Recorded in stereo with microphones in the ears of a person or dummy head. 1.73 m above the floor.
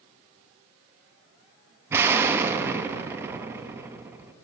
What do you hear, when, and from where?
1.9 s an explosion: 10° right (ahead or behind), 0.6 m